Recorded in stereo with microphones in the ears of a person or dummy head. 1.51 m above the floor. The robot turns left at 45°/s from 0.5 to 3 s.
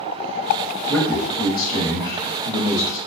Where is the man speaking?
165° left, 0.9 m; by 3.0 s 70° left, 0.9 m.